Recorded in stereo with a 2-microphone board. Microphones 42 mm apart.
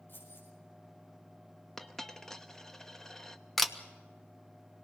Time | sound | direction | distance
0.1 | keys jangling | 55° left (ahead or behind) | 7.5 m
1.8 | a dropped coin | 15° left (ahead or behind) | 1.0 m
3.6 | a camera shutter | 5° left (ahead or behind) | 1.1 m